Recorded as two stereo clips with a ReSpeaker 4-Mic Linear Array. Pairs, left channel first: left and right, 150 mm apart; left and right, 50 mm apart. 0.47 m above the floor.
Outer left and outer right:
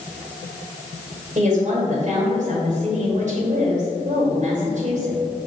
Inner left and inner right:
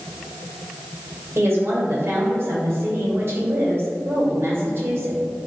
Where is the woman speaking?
55° right (ahead or behind), 1.6 m.